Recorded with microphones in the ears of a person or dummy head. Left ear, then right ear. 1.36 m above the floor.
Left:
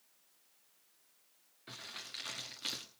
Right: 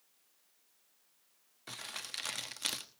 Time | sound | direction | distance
1.7 | crumpling | 30° right (ahead or behind) | 1.1 m